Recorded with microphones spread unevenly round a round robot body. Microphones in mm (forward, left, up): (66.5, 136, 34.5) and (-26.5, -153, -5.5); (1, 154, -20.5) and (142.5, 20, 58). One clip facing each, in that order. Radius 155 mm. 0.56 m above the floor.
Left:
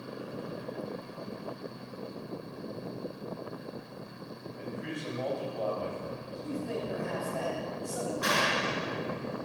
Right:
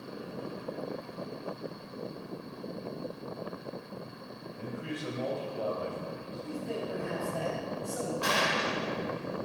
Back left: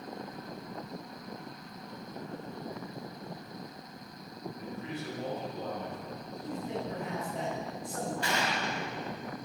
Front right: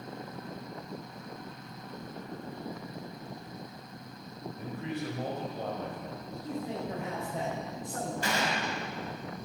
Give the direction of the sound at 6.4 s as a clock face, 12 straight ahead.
12 o'clock.